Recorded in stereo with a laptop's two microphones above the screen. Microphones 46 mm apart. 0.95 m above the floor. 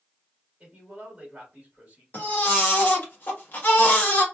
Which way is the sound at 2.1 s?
45° left (ahead or behind).